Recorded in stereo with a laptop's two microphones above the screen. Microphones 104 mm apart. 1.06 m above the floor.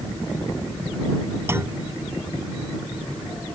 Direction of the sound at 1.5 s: 25° right (ahead or behind).